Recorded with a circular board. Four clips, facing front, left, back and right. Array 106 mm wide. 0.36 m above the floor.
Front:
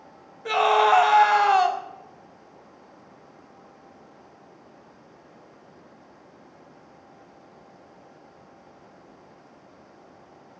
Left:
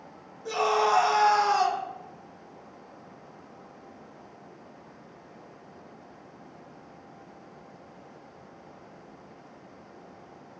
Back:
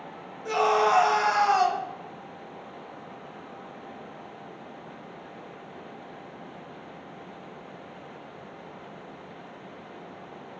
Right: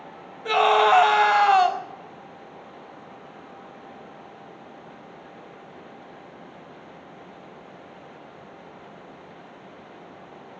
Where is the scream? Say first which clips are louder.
Right 6 dB, front 4 dB; 65° right, 1.0 m.